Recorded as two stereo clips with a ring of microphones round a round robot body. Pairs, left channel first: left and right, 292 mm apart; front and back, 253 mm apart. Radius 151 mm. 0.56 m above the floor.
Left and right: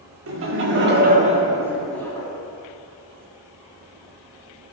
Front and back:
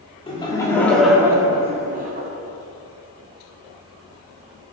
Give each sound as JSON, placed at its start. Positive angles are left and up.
{"t": 0.3, "sound": "laughter", "azimuth_deg": -65, "distance_m": 1.8}